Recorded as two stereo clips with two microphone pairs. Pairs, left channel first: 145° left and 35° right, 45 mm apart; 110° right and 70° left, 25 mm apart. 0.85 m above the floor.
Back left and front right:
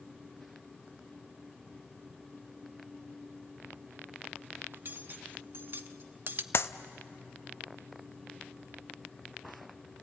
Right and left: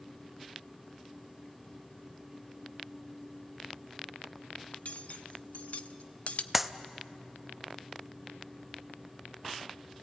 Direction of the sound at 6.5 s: 160° left.